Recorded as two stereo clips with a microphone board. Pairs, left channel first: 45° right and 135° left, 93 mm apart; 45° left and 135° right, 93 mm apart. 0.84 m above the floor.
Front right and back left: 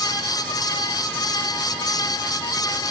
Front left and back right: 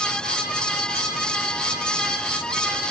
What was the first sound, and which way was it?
Only background noise.